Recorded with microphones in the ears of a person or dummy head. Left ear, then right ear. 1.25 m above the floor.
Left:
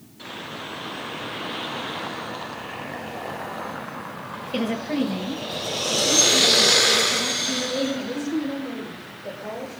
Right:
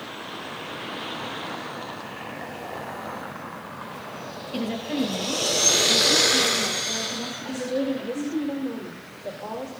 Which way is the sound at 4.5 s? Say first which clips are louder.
Left 3 dB; 20° left (ahead or behind).